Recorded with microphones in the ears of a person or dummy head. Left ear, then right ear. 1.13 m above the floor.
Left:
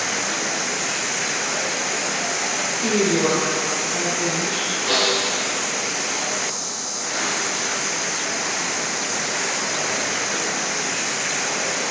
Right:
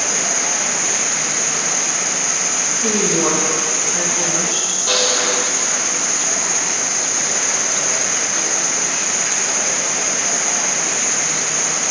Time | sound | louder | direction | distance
0.0 | an insect | right 3 dB | 20° right (ahead or behind) | 0.8 m
2.8 | a woman speaking | right 1 dB | 10° right (ahead or behind) | 1.4 m
4.9 | a snare drum | right 2 dB | 15° right (ahead or behind) | 1.5 m